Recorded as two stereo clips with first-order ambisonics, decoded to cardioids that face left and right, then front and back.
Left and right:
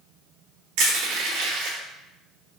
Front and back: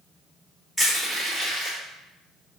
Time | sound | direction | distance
0.8 | crushing | 85° right | 1.6 m